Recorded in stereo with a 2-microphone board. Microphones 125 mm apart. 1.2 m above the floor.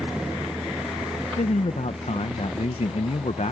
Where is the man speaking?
60° left (ahead or behind).